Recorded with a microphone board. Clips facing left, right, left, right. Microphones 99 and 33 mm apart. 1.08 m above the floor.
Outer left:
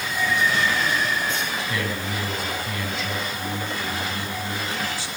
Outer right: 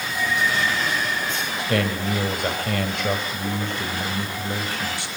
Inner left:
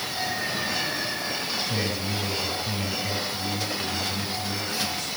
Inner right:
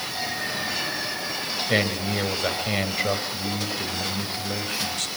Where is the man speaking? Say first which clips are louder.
Outer right 4 dB, inner right 4 dB; 70° right (ahead or behind), 5.5 m.